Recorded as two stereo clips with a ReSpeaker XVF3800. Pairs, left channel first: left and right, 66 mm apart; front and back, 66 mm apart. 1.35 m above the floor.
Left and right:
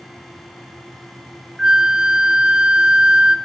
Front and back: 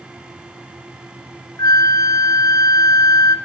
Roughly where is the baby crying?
No baby crying in this recording.